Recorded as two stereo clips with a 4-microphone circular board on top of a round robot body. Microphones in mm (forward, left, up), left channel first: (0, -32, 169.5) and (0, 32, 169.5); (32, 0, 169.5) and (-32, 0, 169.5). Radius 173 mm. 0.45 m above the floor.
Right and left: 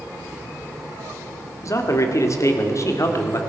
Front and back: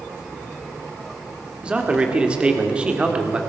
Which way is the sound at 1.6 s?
110° right.